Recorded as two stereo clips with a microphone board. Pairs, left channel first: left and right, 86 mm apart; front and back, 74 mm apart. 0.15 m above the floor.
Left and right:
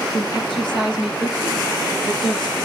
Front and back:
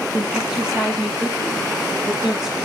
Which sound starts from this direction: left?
A woman speaking, at 0.1 s.